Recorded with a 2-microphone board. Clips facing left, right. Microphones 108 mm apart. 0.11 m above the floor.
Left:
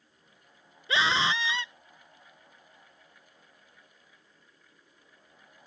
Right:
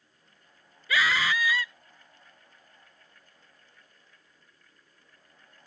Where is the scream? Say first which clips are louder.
Even; 25° left (ahead or behind).